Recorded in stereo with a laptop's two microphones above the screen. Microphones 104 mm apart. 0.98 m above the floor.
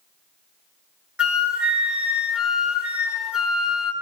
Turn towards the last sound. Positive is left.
turn(degrees=-10)  # may be behind; listen again after turning